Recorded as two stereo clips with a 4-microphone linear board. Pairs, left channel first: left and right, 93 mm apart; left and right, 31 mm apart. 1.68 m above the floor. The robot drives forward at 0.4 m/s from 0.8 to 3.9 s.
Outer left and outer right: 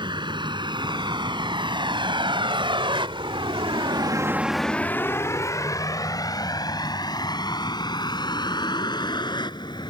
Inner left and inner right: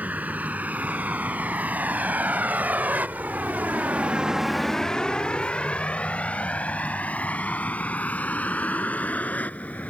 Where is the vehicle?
55° right (ahead or behind); by 9.9 s 50° left (ahead or behind).